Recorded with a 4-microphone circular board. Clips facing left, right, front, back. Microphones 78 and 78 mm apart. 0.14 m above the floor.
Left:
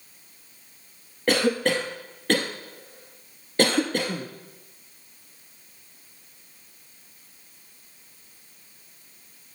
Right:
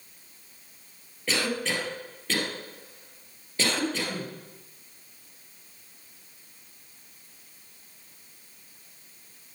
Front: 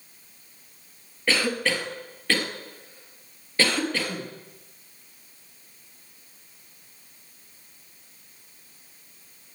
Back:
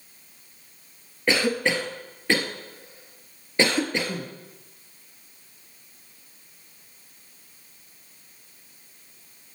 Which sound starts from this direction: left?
A cough, at 1.3 s.